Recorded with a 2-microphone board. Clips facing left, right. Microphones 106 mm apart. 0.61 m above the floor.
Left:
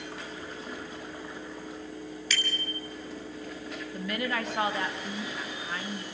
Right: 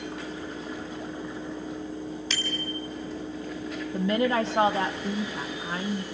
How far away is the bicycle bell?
About 4 m.